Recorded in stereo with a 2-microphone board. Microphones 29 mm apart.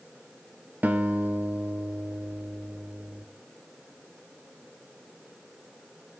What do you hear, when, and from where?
0.8 s a guitar: 85° right, 0.8 m